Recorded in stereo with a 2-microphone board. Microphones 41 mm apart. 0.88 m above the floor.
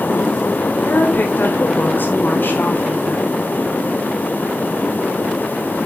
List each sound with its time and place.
0.8 s a woman speaking: 50° left (ahead or behind), 4 m